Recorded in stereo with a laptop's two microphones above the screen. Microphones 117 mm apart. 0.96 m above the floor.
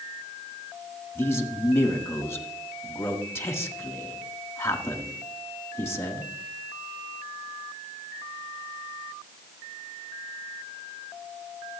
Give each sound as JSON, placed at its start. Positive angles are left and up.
{"t": 1.1, "sound": "a man speaking", "side_deg": 20, "distance_m": 1.6}